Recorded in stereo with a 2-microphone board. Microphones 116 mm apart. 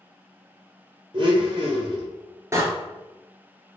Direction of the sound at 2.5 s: 25° right (ahead or behind).